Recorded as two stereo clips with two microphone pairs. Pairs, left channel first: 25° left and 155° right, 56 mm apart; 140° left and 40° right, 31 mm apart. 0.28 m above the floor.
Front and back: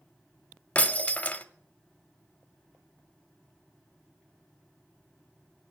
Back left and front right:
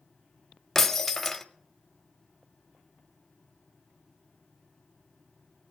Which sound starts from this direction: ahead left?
Breaking glass, at 0.8 s.